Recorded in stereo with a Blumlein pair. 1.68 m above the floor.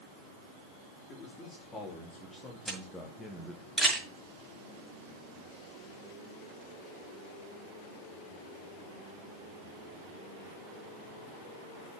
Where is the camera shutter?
Straight ahead, 6 m.